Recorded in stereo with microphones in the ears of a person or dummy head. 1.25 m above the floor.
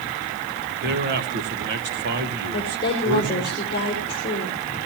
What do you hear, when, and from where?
0.8 s a man speaking: 60° right (ahead or behind), 1.9 m
2.5 s a woman speaking: 25° left (ahead or behind), 4 m